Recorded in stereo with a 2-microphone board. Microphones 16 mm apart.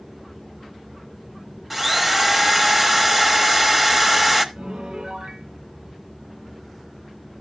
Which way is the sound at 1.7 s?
5° right (ahead or behind).